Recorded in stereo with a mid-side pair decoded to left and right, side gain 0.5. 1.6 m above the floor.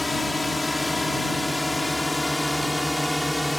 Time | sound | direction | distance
0.0 | a drone | 15° left | ?